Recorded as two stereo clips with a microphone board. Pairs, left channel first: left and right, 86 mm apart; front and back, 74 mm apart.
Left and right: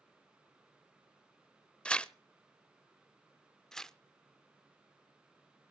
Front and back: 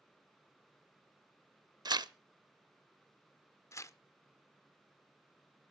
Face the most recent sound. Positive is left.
turn(degrees=10)